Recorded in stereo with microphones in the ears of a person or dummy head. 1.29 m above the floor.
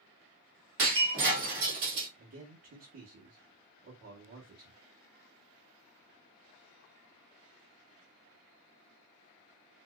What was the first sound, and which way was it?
Breaking glass, 60° right (ahead or behind).